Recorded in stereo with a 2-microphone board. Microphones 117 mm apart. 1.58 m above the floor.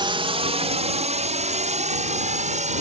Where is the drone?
45° right (ahead or behind); by 2.8 s 80° right.